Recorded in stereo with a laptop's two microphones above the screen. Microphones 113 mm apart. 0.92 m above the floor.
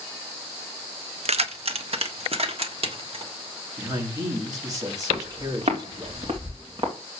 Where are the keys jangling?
60° right (ahead or behind), 0.7 m; by 3.3 s 55° right (ahead or behind), 2.0 m.